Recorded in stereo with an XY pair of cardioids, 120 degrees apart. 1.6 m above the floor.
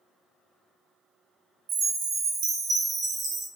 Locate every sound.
1.7 s a chime: 55° right, 0.8 m